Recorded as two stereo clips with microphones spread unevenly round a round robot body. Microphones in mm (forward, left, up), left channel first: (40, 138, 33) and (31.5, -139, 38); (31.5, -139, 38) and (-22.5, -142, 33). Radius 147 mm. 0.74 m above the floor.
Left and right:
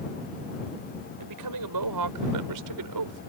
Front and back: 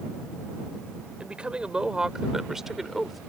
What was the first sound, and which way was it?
A woman speaking, 110° right.